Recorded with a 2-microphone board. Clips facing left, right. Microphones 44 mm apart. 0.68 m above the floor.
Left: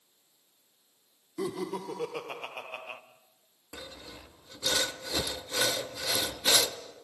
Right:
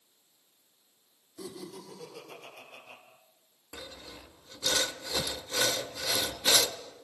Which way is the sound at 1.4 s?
60° left (ahead or behind).